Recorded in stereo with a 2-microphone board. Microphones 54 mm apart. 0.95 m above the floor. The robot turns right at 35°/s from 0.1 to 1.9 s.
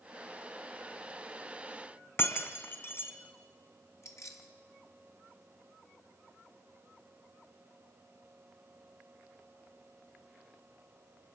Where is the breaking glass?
50° left (ahead or behind), 2.5 m.